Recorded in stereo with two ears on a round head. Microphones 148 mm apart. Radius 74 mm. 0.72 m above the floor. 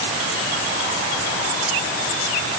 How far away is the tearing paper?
I don't hear tearing paper.